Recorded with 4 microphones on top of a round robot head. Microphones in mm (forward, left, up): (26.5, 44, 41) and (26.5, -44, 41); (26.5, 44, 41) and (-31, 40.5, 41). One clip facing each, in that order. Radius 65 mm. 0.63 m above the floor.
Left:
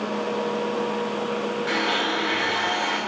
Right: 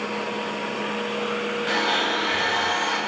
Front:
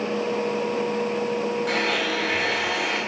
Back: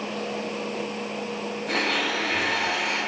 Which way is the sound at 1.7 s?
5° right.